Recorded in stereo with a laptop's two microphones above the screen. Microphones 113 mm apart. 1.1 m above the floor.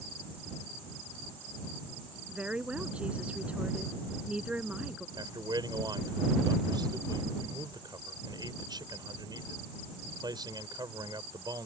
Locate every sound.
2.3 s a woman speaking: 10° right (ahead or behind)
5.2 s a man speaking: 40° right (ahead or behind)